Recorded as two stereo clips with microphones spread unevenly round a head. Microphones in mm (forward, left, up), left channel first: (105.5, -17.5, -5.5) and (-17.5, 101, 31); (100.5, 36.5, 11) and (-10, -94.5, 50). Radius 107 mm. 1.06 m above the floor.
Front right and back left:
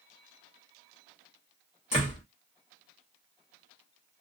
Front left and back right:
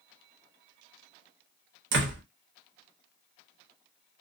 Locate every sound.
1.9 s a door slam: 110° right, 0.8 m